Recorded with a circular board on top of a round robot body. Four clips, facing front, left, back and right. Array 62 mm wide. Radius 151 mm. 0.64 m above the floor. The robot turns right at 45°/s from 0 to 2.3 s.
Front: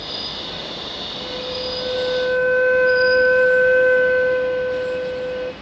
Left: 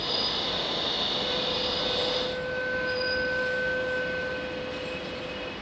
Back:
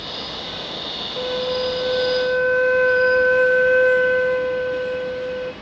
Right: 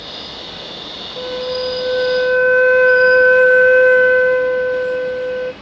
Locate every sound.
1.2 s a flute: 145° right, 0.6 m; by 5.5 s 95° right, 0.6 m